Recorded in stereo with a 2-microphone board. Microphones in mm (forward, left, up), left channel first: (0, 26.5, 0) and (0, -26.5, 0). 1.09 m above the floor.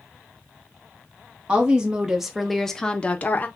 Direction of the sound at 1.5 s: 20° right (ahead or behind).